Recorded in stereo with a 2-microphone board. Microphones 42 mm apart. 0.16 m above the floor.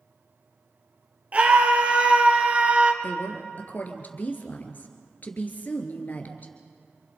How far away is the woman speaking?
About 3 m.